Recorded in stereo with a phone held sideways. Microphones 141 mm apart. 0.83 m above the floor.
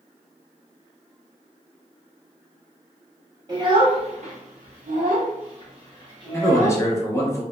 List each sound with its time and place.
3.5 s a child speaking: 25° right (ahead or behind), 0.9 m
6.3 s a man speaking: 20° left (ahead or behind), 0.6 m